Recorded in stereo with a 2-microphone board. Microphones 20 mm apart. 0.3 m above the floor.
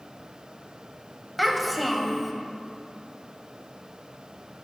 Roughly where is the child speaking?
Centre.